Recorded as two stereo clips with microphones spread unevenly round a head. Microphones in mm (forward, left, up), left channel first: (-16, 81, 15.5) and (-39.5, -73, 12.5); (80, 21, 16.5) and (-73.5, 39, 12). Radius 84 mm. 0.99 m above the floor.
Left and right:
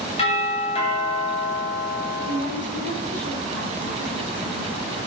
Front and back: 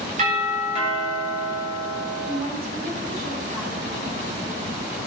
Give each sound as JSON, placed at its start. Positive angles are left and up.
{"t": 0.2, "sound": "a doorbell", "azimuth_deg": 130, "distance_m": 8.0}
{"t": 2.2, "sound": "a woman speaking", "azimuth_deg": 120, "distance_m": 8.0}